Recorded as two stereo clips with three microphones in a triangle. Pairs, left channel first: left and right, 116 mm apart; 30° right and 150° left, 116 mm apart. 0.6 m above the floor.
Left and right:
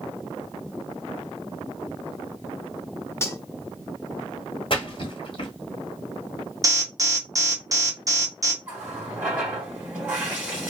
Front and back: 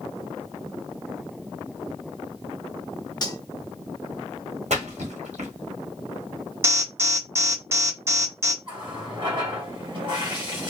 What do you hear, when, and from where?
3.2 s cutlery clinking: 25° left, 0.5 m
4.7 s a splash: 135° left, 1.0 m
6.6 s an alarm: 145° right, 0.7 m
8.6 s a running tap: 165° right, 1.7 m